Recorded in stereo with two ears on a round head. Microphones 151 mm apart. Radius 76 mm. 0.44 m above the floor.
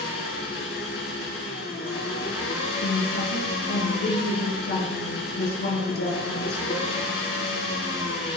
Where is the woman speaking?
70° left (ahead or behind), 6 m.